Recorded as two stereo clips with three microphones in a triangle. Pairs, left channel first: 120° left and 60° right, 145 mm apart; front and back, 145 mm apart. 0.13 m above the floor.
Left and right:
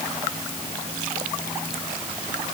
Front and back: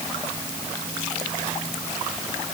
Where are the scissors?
I don't hear scissors.